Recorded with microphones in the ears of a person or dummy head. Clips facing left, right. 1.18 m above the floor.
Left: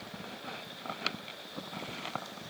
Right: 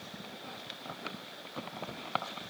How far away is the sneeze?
No sneeze in this recording.